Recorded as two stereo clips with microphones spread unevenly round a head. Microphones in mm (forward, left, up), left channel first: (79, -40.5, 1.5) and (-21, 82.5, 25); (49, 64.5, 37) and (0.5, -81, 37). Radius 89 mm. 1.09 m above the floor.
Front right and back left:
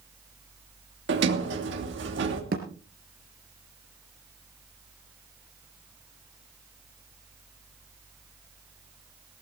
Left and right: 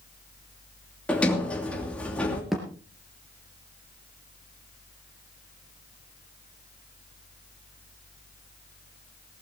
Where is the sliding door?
155° left, 2.5 m.